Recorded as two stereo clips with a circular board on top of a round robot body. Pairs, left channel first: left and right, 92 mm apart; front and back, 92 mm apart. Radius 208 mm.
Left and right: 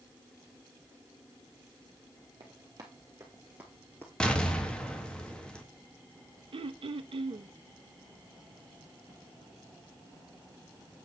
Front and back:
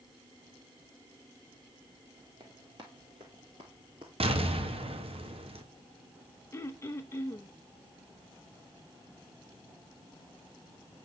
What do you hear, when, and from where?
2.4 s running footsteps: 135° right, 1.8 m; by 4.1 s 145° left, 1.1 m
4.2 s an explosion: 170° left, 2.0 m
6.5 s throat clearing: 65° right, 0.8 m